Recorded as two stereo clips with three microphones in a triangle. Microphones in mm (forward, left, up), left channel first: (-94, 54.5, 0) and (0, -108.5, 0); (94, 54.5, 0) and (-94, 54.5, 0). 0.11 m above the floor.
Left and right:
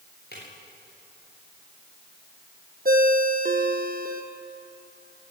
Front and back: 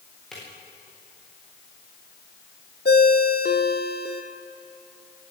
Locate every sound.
0.3 s a drawer: 90° left, 8 m
2.9 s a ringtone: 25° right, 1.7 m